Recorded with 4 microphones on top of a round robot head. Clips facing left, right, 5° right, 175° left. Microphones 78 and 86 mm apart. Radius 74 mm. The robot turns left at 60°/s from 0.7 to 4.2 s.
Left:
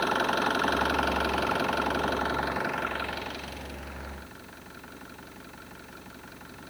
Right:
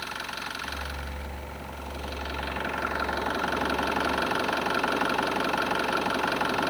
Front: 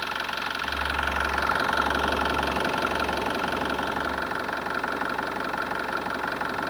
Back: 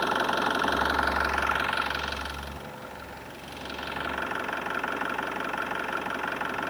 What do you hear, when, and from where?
0.0 s an engine running: 125° left; by 6.7 s 85° right